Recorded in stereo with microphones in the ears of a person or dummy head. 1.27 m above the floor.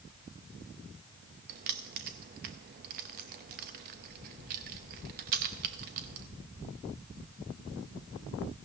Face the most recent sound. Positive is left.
turn(degrees=-45)  # may be behind; listen again after turning